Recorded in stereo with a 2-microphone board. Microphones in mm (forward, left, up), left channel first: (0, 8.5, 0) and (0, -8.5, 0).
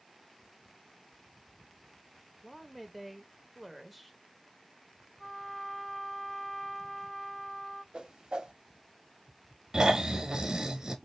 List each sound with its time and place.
2.4 s a woman speaking: centre (ahead or behind), 0.8 m
5.2 s a trumpet: 25° left (ahead or behind), 2 m
7.9 s a whoosh: 50° right (ahead or behind), 0.7 m
9.7 s snoring: 50° right (ahead or behind), 1.1 m